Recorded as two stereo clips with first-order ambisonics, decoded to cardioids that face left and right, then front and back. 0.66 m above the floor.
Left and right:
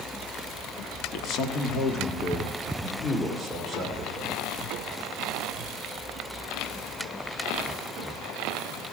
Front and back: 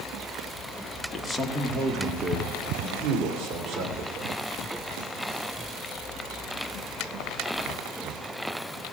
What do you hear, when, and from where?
1.1 s a man speaking: 80° left, 1.5 m; by 4.4 s straight behind, 3 m